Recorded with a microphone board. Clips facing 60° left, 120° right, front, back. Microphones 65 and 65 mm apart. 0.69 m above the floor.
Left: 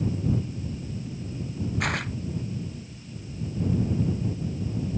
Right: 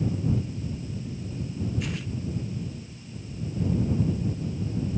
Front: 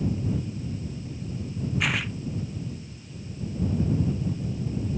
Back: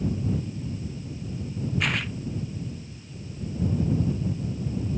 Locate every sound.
1.8 s tearing paper: 85° left